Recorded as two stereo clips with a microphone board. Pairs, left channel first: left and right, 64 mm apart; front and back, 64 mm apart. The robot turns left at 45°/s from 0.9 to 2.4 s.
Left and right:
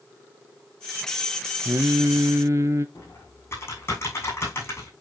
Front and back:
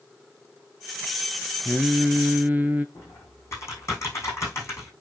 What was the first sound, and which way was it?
Singing, 90° right.